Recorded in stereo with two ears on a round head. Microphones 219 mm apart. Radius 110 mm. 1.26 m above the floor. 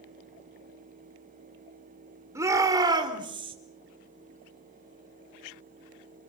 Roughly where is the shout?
Centre.